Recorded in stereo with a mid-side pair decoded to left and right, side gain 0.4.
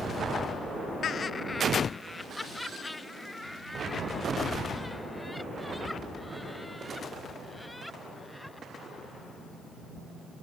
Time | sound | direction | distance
1.0 | laughter | 65° left | ?